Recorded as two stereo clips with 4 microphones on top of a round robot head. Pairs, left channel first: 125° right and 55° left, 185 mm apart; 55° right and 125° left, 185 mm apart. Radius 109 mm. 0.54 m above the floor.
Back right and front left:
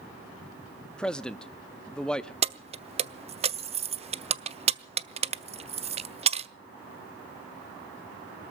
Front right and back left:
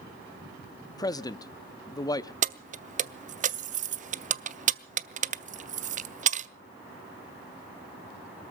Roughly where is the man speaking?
Ahead right.